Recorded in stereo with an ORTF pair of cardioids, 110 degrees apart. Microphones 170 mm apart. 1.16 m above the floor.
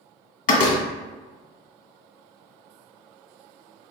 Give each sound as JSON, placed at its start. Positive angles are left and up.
{"t": 0.5, "sound": "a door slam", "azimuth_deg": 50, "distance_m": 1.0}